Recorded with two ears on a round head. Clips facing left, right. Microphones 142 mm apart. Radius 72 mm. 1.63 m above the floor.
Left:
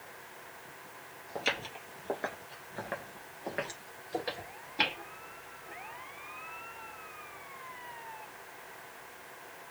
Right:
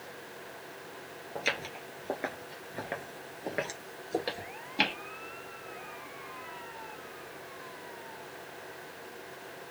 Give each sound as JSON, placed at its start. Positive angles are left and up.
{"t": 1.4, "sound": "footsteps", "side_deg": -5, "distance_m": 1.7}